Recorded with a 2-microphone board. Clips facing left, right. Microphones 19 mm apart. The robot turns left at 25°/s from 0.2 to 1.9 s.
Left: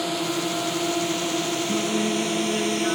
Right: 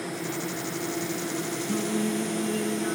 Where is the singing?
15° left (ahead or behind); by 3.0 s 20° left (ahead or behind).